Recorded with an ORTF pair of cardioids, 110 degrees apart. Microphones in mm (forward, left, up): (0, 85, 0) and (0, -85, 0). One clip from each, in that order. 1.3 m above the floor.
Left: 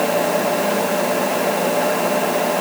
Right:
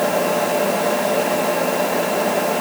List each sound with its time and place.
Only background noise.